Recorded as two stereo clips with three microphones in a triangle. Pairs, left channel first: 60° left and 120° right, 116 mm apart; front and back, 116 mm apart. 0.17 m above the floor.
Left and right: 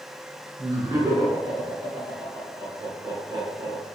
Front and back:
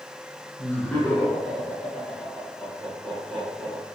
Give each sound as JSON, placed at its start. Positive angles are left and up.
{"t": 0.6, "sound": "laughter", "azimuth_deg": -75, "distance_m": 1.8}